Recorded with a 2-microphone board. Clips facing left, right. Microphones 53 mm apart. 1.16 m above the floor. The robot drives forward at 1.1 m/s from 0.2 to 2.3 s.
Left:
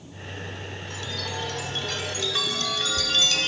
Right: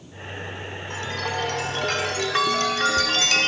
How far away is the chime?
About 1.5 m.